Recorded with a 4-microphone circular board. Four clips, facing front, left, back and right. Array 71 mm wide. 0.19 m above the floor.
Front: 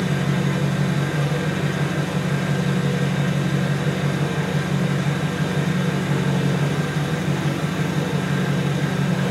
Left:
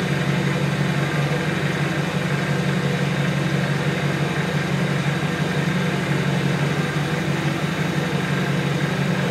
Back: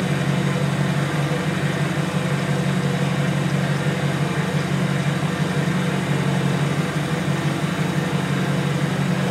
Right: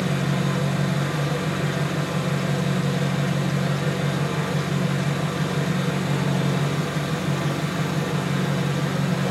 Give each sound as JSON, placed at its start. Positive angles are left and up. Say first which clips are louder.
{"t": 0.0, "sound": "an engine running", "louder": "left 2 dB, even", "azimuth_deg": 105, "distance_m": 2.5}